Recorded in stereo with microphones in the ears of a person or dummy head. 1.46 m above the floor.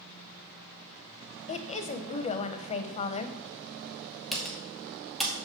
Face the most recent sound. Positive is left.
turn(degrees=0)  # may be behind; listen again after turning